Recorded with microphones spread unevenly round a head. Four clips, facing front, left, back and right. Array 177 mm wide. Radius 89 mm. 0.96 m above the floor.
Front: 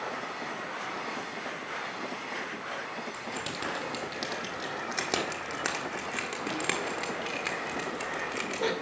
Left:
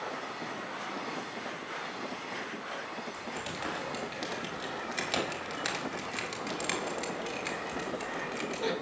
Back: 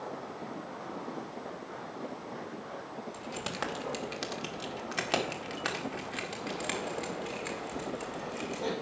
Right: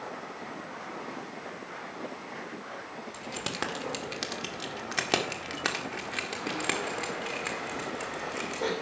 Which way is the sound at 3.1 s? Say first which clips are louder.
Right 2 dB, front 1 dB; 100° right.